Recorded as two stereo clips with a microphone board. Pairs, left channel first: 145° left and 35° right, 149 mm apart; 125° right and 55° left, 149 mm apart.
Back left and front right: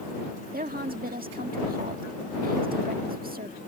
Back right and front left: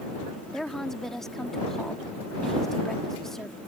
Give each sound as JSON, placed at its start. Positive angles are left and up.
{"t": 0.5, "sound": "a woman speaking", "azimuth_deg": -40}